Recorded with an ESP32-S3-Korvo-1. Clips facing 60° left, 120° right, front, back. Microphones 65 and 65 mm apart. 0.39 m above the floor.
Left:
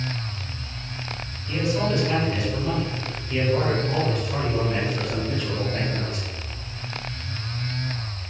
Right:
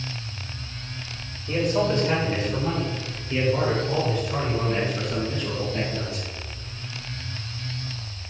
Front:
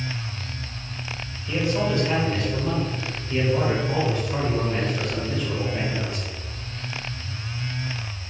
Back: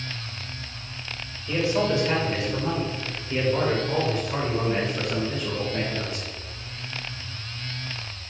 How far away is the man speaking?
About 1.9 m.